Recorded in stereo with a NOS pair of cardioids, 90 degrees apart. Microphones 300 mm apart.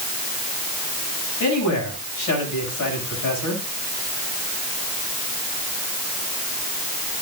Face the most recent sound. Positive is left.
turn(degrees=65)